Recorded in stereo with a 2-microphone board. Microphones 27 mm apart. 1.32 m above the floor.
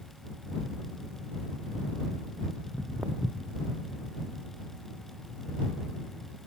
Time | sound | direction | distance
2.6 | footsteps | 75° right (ahead or behind) | ?